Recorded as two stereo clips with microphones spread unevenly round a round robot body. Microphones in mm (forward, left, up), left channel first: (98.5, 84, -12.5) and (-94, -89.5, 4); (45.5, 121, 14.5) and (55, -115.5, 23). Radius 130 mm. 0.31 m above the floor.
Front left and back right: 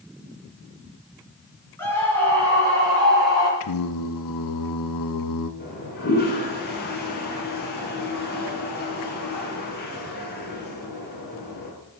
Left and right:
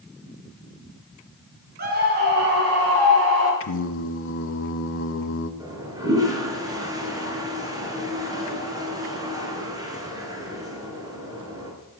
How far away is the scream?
About 4 m.